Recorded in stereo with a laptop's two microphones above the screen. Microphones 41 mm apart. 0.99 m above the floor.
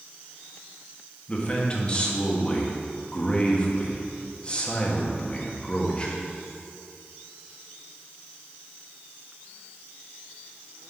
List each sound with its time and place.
1.3 s a man speaking: 25° left (ahead or behind), 1.5 m